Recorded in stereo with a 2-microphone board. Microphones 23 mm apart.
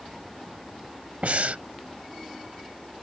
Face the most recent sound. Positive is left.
turn(degrees=-70)  # may be behind; listen again after turning